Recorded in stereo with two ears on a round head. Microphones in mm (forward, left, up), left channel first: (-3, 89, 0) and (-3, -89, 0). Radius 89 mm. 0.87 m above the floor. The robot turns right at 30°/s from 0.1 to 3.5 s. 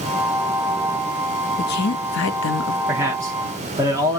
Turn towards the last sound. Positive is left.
turn(degrees=-20)  # may be behind; listen again after turning